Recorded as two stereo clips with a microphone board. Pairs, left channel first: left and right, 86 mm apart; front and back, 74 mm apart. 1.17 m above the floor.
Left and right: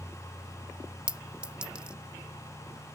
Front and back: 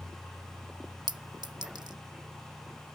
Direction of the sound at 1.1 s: 170° right.